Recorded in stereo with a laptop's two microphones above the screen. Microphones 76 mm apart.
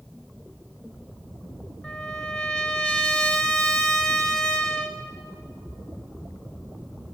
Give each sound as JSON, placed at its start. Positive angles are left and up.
{"t": 1.8, "sound": "a trumpet", "side_deg": 15, "distance_m": 2.5}